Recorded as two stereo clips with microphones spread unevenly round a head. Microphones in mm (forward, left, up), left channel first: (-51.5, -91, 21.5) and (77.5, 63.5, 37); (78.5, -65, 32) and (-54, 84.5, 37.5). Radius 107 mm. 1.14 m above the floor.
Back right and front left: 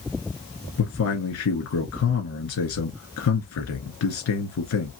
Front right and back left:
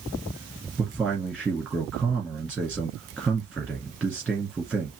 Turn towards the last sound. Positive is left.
turn(degrees=-140)